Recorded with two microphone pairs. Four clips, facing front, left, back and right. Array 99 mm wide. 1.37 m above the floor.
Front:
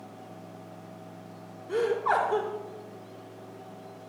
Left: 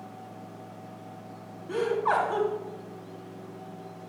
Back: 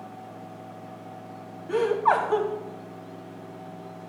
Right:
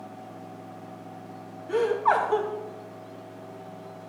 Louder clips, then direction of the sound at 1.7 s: Right 3 dB, back 4 dB; 150° right.